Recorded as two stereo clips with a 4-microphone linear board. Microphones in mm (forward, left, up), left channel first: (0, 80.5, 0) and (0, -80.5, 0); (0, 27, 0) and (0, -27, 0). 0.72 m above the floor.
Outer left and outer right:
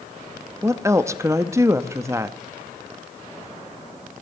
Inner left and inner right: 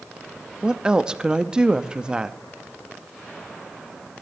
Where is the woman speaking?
20° right (ahead or behind), 0.6 m.